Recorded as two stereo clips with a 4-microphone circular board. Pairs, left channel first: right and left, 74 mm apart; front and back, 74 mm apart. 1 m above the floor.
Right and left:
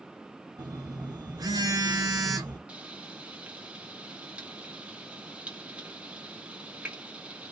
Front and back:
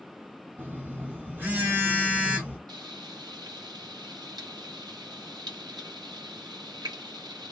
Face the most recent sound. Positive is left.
turn(degrees=165)